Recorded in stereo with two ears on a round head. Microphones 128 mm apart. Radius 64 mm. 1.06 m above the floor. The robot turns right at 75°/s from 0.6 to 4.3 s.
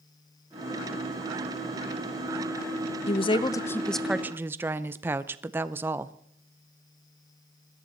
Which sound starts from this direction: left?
A woman speaking, at 3.1 s.